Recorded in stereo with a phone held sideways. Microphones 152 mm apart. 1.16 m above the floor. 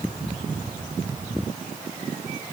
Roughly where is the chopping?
I don't hear chopping.